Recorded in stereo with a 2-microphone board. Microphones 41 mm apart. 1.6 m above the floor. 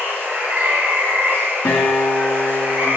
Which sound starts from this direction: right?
Running water, at 0.0 s.